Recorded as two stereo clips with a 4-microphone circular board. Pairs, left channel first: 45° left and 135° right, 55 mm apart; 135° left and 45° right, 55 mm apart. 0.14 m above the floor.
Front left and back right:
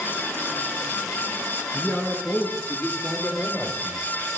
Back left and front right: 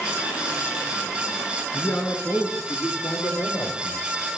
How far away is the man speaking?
About 1.3 m.